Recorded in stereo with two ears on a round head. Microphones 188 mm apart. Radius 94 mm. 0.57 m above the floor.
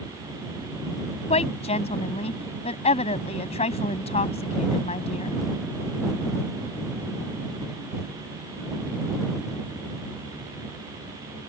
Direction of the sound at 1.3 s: 30° left (ahead or behind).